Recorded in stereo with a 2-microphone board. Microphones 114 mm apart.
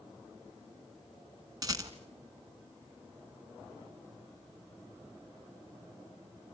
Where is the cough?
I don't hear a cough.